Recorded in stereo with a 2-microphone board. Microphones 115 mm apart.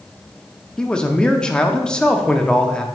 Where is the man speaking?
10° left (ahead or behind), 0.6 m.